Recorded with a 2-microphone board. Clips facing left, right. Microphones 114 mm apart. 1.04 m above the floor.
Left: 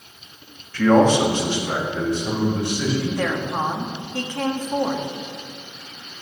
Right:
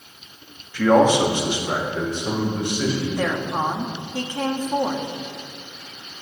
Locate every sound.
0.7 s a man speaking: 10° right (ahead or behind), 1.8 m; by 3.1 s 25° right (ahead or behind), 5 m
3.2 s a woman speaking: 10° right (ahead or behind), 1.5 m